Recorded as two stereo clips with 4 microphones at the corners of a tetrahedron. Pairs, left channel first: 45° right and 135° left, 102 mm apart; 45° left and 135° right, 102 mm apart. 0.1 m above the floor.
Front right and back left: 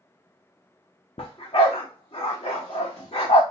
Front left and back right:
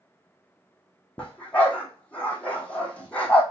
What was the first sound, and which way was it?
A dog barking, 30° right.